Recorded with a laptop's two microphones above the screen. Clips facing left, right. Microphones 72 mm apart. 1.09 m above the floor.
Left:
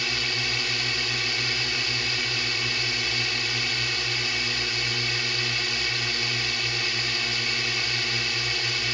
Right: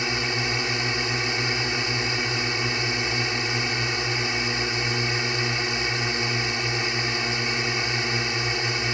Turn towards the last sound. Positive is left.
turn(degrees=-25)  # may be behind; listen again after turning